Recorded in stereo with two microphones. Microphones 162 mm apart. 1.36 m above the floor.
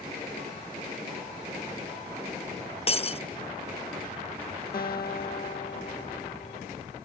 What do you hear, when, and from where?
2.9 s breaking glass: 40° left (ahead or behind)
4.7 s a guitar: 65° left (ahead or behind)